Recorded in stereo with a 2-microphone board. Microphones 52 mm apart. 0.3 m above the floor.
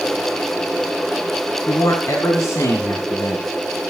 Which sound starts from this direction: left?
A man speaking, at 1.7 s.